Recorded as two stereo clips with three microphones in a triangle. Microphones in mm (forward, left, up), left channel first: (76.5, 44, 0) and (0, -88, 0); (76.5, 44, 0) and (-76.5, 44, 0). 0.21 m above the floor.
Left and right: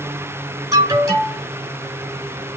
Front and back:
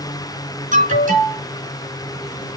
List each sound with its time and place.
0.7 s an alarm: 175° left, 4.5 m